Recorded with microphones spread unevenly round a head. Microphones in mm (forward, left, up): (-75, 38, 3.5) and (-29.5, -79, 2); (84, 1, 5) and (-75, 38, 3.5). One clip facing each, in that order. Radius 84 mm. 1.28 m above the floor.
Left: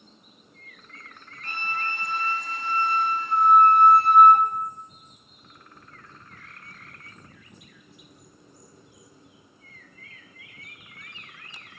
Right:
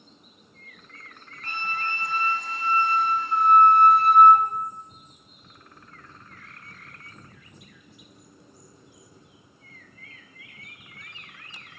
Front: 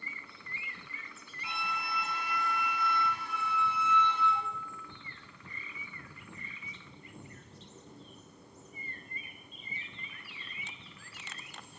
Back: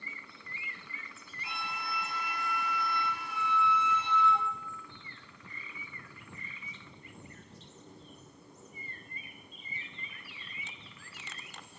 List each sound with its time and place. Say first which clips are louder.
1.4 s a flute: right 1 dB, front 2 dB; 40° right, 1.2 m